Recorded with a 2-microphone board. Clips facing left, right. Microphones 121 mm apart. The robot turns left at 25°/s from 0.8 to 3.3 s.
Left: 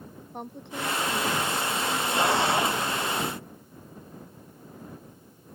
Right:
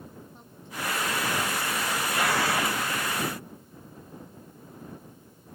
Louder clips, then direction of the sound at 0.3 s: Left 6 dB; 65° left.